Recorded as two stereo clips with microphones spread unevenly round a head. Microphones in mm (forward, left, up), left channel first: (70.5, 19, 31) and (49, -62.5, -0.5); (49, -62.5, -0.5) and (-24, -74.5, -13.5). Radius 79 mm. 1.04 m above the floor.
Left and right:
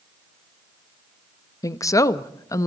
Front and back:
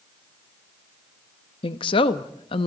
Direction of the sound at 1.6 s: 20° left.